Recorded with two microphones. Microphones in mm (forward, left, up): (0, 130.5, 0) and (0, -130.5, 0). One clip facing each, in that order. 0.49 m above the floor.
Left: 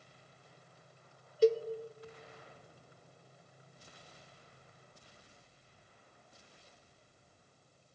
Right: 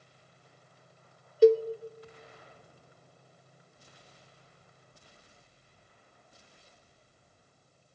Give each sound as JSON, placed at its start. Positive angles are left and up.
{"t": 1.4, "sound": "a cowbell", "side_deg": -60, "distance_m": 0.5}